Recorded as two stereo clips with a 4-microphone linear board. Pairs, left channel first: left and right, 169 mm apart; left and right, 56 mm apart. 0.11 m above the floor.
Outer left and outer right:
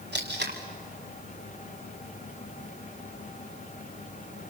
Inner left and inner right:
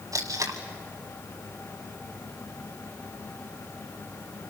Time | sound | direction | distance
0.1 | tape being pulled | 85° right | 3 m